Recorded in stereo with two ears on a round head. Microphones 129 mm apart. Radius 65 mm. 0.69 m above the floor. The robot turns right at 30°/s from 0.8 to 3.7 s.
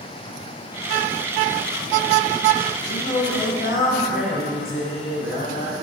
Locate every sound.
2.9 s singing: 85° left, 1.5 m; by 5.7 s 70° left (ahead or behind), 1.5 m